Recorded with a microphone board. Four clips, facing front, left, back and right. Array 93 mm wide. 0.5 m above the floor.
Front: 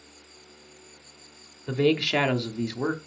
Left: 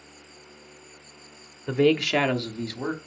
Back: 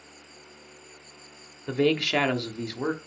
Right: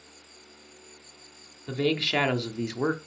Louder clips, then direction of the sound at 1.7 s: Left 6 dB, front 1 dB; 100° left.